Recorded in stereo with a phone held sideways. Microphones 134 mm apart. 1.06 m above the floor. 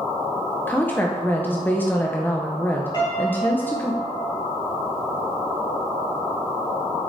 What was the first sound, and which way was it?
A woman speaking, 15° left (ahead or behind).